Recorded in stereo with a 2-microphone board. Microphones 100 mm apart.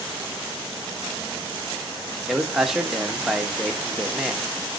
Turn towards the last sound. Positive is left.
turn(degrees=0)  # may be behind; listen again after turning